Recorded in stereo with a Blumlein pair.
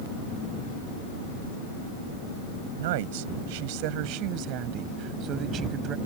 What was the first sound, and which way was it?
A woman speaking, 55° right.